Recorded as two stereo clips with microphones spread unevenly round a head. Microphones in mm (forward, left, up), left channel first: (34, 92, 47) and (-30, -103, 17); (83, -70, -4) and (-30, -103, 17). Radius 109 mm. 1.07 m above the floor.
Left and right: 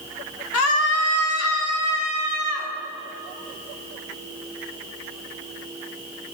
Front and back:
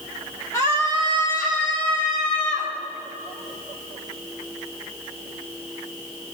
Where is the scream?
90° left, 1.6 m; by 2.7 s 85° left, 4.5 m.